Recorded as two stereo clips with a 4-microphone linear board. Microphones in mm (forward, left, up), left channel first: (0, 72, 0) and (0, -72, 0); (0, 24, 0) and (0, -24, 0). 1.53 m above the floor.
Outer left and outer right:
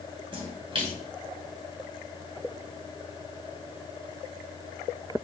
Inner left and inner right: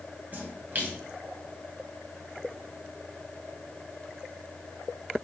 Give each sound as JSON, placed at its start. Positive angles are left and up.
{"t": 0.3, "sound": "a splash", "side_deg": -40, "distance_m": 2.0}